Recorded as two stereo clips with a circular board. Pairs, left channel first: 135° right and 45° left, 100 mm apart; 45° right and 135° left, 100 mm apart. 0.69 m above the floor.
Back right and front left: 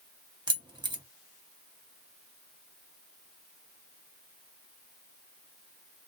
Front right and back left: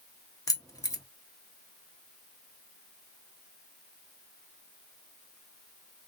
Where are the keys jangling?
10° left, 0.7 m.